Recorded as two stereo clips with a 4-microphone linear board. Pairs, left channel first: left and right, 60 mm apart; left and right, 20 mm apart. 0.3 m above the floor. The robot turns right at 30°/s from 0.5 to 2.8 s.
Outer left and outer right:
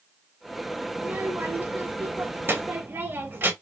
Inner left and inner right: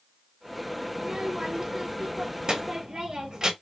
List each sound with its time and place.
0.9 s a child speaking: 135° right, 0.6 m; by 3.5 s 80° right, 0.6 m